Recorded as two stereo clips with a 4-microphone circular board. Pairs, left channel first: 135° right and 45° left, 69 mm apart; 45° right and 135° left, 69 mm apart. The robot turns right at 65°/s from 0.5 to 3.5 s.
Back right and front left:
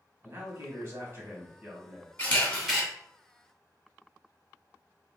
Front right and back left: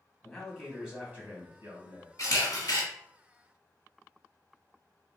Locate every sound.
0.2 s a man speaking: 35° left, 1.2 m; by 2.1 s 140° left, 1.2 m
2.2 s a camera shutter: 80° right, 1.3 m; by 2.8 s 35° right, 1.3 m